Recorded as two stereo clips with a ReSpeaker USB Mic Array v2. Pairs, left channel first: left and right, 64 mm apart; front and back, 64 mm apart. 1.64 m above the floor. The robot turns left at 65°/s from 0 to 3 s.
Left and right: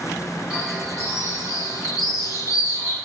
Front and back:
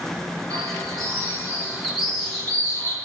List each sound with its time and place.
0.5 s a bird: 175° right, 8.5 m; by 3.0 s 25° left, 8.5 m